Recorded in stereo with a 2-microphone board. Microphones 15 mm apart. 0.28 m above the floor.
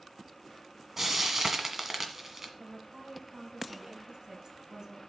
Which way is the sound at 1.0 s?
25° right (ahead or behind).